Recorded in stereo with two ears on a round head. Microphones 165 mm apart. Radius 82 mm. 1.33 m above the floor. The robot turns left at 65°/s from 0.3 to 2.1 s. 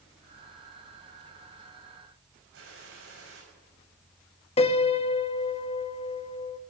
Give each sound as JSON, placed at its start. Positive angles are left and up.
{"t": 2.5, "sound": "a gunshot", "side_deg": -75, "distance_m": 6.5}
{"t": 4.6, "sound": "a piano", "side_deg": 30, "distance_m": 0.8}